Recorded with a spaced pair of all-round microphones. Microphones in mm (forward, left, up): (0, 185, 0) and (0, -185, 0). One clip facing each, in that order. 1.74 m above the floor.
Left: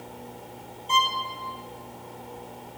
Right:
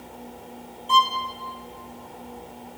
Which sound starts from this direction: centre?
A violin, at 0.9 s.